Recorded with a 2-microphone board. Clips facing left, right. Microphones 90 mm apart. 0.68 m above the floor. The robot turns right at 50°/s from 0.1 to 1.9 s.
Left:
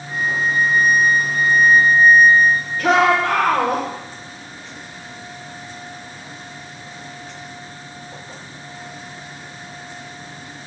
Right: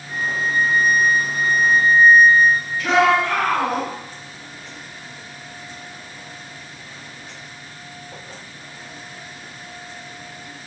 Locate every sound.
0.1 s a flute: 130° left, 3.5 m; by 2.7 s 140° right, 3.5 m
2.8 s a shout: 65° left (ahead or behind), 2.5 m